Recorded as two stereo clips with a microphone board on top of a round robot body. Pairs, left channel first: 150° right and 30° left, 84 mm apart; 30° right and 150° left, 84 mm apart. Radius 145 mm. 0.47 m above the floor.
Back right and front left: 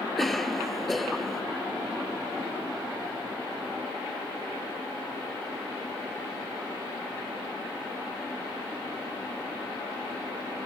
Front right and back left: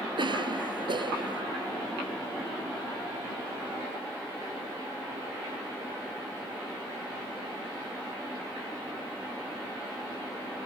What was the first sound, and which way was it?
A cough, 120° left.